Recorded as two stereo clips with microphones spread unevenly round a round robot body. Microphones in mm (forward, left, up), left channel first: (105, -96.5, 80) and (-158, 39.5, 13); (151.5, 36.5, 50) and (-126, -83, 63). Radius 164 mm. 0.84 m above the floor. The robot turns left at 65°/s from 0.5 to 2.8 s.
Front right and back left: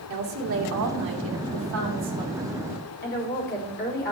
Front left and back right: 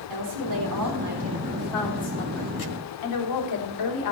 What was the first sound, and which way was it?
A woman speaking, 175° right.